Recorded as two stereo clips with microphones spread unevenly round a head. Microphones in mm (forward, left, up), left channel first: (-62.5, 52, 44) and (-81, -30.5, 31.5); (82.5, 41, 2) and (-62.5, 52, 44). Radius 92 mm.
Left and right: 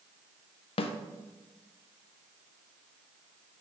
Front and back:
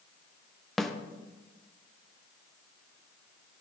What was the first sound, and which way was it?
A snare drum, 80° left.